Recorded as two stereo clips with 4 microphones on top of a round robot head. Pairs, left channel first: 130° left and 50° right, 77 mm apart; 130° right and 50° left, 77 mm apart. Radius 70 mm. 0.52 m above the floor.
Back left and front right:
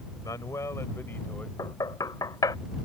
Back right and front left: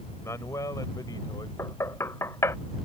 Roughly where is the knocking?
Behind.